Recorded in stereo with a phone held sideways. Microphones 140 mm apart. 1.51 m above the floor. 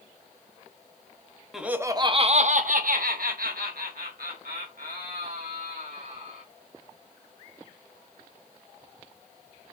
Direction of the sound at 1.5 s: 5° right (ahead or behind).